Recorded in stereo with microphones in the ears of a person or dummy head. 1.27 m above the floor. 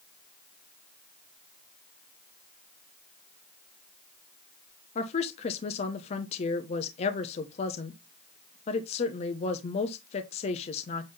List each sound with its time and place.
5.0 s a woman speaking: 40° left (ahead or behind), 0.8 m